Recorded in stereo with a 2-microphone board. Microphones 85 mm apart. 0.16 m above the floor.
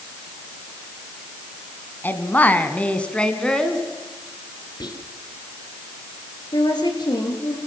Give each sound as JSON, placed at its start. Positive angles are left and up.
{"t": 2.0, "sound": "a woman speaking", "side_deg": 25, "distance_m": 1.5}
{"t": 4.8, "sound": "whispering", "side_deg": 60, "distance_m": 2.5}
{"t": 6.5, "sound": "a woman speaking", "side_deg": 60, "distance_m": 3.5}